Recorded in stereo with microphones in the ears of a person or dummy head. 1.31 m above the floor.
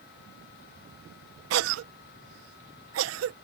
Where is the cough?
70° right (ahead or behind).